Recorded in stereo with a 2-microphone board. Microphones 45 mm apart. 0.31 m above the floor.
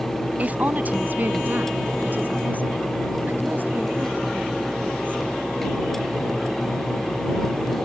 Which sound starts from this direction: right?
A woman speaking, at 0.4 s.